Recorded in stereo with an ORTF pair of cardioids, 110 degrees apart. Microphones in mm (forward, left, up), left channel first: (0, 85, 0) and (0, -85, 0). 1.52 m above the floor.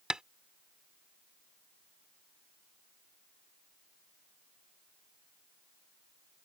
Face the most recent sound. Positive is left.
turn(degrees=-5)